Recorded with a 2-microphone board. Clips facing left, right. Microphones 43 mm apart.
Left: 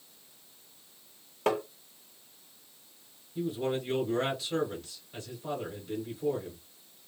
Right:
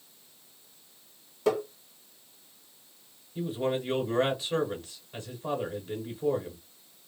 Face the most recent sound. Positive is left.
turn(degrees=-25)  # may be behind; listen again after turning